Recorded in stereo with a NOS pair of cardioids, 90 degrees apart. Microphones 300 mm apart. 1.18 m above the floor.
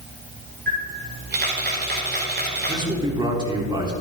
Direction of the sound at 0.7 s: 35° right.